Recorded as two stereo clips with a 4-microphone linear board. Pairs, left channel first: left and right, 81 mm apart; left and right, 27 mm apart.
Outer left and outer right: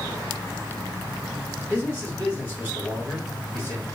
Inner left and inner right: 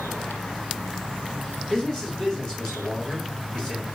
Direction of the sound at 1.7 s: 25° left (ahead or behind).